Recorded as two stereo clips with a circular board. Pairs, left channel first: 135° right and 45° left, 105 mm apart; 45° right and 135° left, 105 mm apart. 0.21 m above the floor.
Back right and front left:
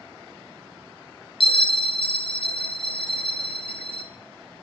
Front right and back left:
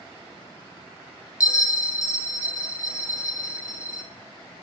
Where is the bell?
105° right, 1.8 m.